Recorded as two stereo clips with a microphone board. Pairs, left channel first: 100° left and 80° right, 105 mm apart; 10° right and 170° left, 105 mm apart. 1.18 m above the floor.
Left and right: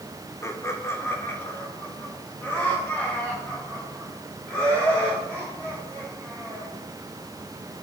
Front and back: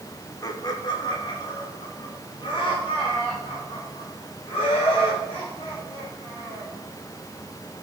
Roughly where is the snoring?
I don't hear snoring.